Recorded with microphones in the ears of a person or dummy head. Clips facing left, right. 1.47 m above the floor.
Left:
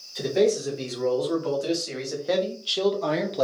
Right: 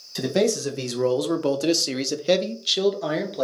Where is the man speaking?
80° right, 1.3 m; by 3.4 s 10° left (ahead or behind), 0.9 m.